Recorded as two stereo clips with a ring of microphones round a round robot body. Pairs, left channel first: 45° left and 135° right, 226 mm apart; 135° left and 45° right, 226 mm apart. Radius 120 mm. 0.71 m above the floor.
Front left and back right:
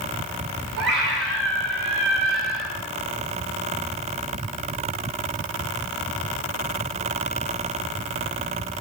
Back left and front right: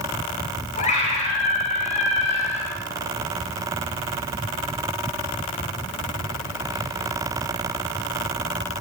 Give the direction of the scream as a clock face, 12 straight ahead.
6 o'clock.